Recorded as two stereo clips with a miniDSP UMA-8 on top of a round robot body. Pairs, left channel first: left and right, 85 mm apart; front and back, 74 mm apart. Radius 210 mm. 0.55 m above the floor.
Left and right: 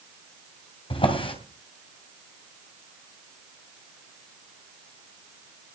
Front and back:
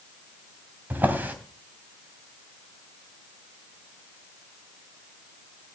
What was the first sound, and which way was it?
A drawer, 110° left.